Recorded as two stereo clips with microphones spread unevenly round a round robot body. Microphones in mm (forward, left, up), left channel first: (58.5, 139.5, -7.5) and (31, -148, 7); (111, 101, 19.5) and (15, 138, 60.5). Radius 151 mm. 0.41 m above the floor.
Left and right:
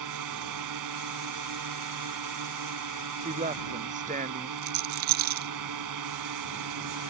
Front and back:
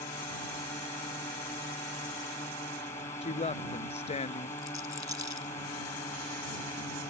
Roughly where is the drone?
Right.